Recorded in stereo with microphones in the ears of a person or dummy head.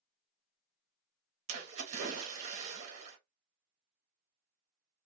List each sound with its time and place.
1.5 s a splash: 40° right (ahead or behind), 0.9 m